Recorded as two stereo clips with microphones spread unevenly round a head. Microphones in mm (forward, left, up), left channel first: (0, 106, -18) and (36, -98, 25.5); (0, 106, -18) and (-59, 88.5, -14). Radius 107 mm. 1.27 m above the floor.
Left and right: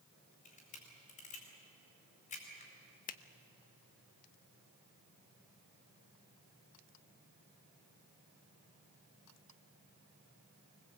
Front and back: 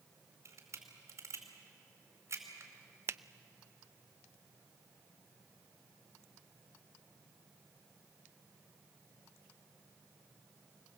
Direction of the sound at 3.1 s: 155° left.